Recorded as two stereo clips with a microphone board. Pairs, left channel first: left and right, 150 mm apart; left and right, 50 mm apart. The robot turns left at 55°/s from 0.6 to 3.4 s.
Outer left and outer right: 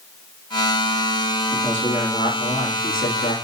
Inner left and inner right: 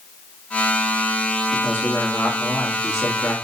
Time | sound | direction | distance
1.5 | a man speaking | 155° left | 1.2 m